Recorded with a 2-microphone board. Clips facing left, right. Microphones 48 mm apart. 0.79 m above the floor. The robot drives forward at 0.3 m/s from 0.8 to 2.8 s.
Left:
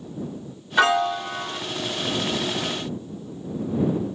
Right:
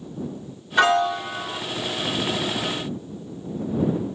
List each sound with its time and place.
0.8 s a piano: 5° left (ahead or behind), 0.8 m